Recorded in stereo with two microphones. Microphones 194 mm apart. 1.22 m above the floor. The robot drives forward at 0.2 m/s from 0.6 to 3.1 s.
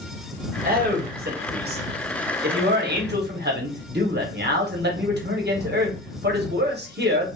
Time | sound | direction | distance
0.6 | a man speaking | 50° right (ahead or behind) | 1.0 m